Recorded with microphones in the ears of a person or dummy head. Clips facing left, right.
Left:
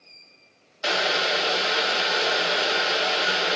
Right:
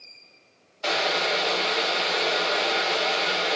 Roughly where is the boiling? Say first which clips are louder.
Even; centre.